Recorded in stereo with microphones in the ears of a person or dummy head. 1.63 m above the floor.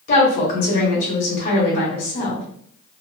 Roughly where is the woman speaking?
Left.